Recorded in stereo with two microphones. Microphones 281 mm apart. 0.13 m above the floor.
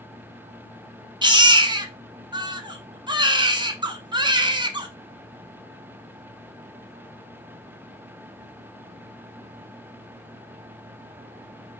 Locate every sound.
1.2 s a baby crying: 15° right (ahead or behind), 0.7 m